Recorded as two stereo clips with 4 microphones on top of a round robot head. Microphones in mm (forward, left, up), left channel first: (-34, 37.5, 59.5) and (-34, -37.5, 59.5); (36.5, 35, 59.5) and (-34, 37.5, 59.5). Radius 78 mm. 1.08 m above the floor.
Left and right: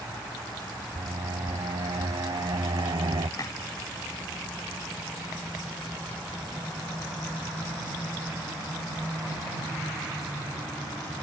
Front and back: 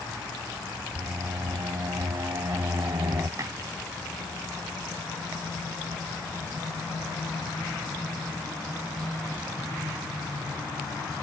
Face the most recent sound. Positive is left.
turn(degrees=135)